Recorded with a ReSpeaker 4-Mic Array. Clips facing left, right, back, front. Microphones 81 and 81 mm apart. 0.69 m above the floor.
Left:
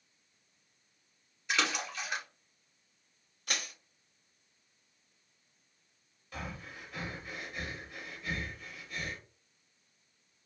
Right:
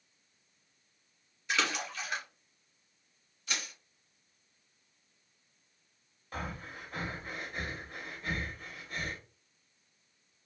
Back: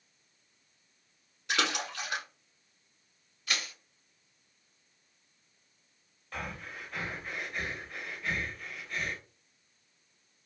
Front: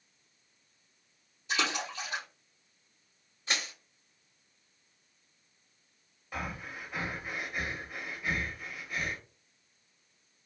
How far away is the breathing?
About 0.5 m.